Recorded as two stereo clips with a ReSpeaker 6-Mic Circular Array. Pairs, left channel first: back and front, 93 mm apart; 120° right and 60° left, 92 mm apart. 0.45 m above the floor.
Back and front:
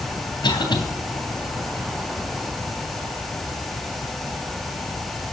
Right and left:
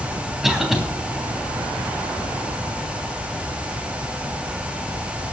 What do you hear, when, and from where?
0.4 s a cough: 150° left, 3 m